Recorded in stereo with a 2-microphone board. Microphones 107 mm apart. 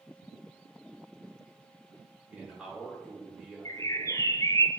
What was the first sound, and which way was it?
A man speaking, 10° right (ahead or behind).